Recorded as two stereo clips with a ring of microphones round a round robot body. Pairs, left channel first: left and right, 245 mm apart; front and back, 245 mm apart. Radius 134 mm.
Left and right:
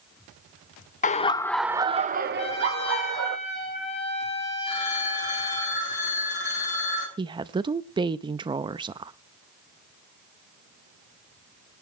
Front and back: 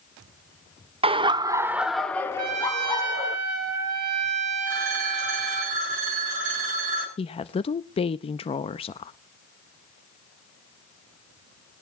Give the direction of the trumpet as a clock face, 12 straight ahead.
7 o'clock.